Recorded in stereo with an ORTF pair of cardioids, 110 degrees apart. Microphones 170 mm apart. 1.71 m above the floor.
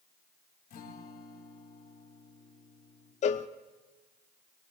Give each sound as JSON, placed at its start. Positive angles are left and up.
{"t": 0.7, "sound": "a guitar", "azimuth_deg": 65, "distance_m": 3.0}
{"t": 3.2, "sound": "a cowbell", "azimuth_deg": 45, "distance_m": 0.7}